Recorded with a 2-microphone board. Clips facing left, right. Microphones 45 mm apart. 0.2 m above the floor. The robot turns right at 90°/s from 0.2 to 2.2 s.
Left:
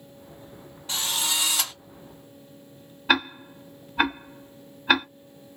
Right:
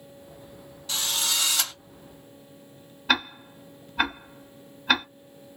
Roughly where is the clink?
No clink in this recording.